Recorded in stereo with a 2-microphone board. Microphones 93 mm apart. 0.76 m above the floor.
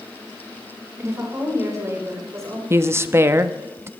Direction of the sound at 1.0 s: 30° right (ahead or behind).